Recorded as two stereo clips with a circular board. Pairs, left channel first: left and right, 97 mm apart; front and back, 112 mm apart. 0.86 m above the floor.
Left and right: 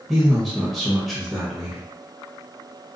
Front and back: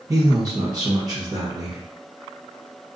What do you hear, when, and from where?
0.1 s a man speaking: straight behind, 1.0 m